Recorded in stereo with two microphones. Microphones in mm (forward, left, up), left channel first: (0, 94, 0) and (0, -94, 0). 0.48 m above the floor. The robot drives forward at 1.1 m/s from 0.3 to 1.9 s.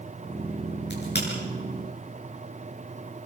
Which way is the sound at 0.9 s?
60° left (ahead or behind).